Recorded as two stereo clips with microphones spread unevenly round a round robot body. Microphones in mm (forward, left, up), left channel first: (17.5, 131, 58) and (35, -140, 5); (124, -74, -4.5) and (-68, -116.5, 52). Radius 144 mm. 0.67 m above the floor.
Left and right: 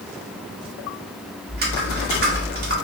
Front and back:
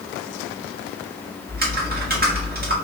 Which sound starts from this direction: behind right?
Typing on a keyboard, at 1.5 s.